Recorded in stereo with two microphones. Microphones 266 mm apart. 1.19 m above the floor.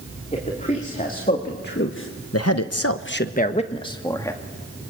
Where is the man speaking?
25° left (ahead or behind), 3.5 m; by 4.4 s 10° left (ahead or behind), 2.5 m.